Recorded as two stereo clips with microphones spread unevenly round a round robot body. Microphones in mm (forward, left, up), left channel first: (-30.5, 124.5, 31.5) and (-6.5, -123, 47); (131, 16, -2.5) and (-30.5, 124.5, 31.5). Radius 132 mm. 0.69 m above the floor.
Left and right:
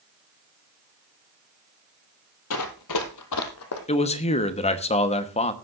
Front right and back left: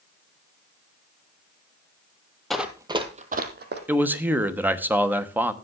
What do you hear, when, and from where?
2.5 s running footsteps: 60° left, 1.4 m; by 3.8 s 125° left, 1.9 m
3.9 s a man speaking: 55° left, 1.1 m